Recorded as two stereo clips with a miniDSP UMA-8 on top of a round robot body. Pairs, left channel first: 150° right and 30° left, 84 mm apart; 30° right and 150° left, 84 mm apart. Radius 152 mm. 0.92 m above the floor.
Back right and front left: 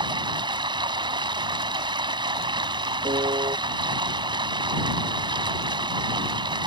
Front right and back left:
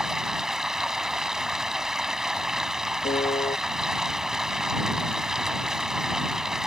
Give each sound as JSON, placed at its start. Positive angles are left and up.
{"t": 0.0, "sound": "running water", "azimuth_deg": 65}
{"t": 3.0, "sound": "a piano", "azimuth_deg": -5}